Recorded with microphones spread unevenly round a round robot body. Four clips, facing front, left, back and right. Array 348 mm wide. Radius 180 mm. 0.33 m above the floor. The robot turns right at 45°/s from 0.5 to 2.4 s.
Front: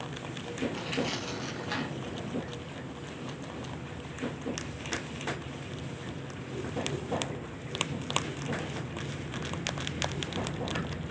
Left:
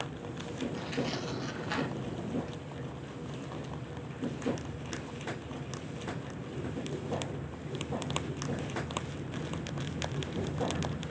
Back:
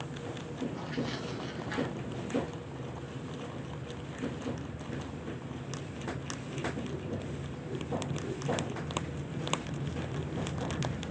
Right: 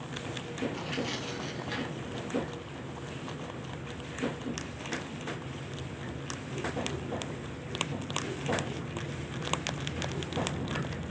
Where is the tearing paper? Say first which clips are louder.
Even, front 3 dB; 5° left, 0.7 m; by 2.6 s 80° left, 0.7 m.